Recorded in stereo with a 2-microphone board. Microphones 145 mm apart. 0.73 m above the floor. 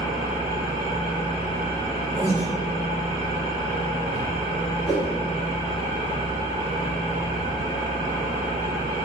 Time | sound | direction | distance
0.0 | an engine running | 35° left (ahead or behind) | 1.1 m
2.2 | breathing | 15° right (ahead or behind) | 0.8 m
4.9 | a whoosh | 45° left (ahead or behind) | 1.1 m